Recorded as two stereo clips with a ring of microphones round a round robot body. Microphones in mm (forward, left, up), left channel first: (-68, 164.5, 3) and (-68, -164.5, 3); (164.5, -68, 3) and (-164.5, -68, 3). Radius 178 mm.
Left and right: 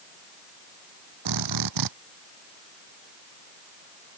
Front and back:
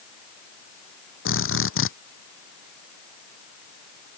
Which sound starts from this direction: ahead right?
A drill, at 1.2 s.